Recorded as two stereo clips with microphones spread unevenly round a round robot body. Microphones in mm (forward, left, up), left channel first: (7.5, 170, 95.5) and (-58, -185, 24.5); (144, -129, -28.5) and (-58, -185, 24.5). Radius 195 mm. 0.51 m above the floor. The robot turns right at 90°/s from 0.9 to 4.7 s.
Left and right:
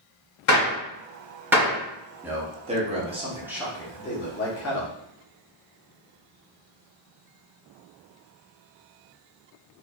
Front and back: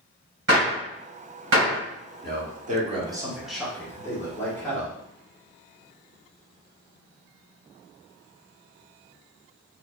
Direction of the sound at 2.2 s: 160° right.